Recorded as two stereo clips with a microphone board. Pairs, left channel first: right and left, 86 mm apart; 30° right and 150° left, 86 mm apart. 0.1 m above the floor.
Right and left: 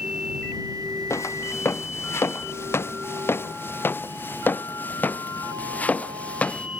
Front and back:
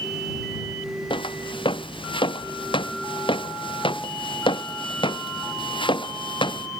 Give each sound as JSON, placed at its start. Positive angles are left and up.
{"t": 1.1, "sound": "footsteps", "azimuth_deg": -35}